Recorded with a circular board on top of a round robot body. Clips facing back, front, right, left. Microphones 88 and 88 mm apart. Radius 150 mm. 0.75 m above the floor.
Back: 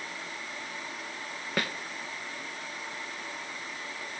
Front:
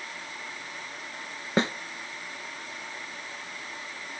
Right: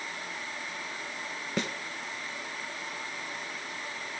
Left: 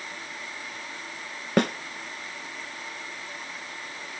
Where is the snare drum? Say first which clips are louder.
Front 7 dB, left 10 dB; 65° left, 0.7 m.